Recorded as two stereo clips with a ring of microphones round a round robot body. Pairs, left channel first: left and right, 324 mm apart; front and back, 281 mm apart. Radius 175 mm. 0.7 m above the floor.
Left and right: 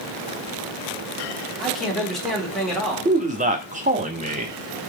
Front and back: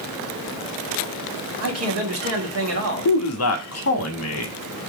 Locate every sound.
1.6 s a man speaking: straight behind, 1.7 m
3.0 s a man speaking: 25° right, 0.8 m